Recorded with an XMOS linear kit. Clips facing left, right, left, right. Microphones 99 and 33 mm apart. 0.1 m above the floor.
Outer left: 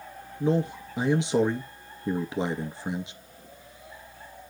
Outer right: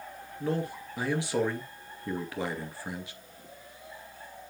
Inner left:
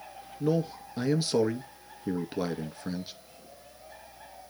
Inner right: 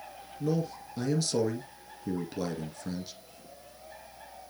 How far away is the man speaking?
About 2.0 m.